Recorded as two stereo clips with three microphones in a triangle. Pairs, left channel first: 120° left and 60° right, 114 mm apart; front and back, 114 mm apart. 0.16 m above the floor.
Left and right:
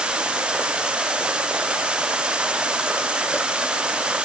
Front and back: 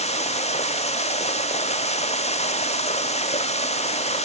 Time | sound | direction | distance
0.0 | running water | 20° left | ?